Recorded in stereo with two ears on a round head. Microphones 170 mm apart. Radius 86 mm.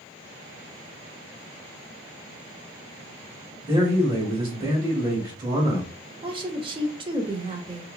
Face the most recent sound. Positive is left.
turn(degrees=-25)  # may be behind; listen again after turning